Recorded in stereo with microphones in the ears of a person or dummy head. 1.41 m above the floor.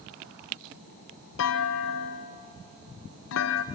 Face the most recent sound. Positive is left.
turn(degrees=70)  # may be behind; listen again after turning